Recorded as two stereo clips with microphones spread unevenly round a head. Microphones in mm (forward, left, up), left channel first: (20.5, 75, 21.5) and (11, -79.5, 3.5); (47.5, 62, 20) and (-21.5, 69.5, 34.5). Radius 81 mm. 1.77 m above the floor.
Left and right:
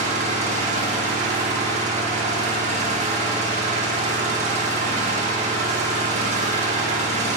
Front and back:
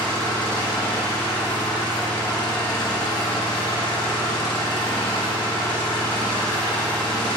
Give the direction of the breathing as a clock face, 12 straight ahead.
I don't hear breathing.